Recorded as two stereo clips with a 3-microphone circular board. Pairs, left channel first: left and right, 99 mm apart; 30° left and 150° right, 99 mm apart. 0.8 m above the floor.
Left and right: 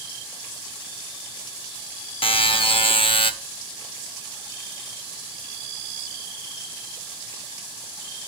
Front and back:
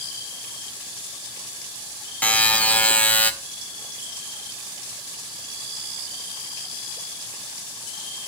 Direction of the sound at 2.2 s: 105° left.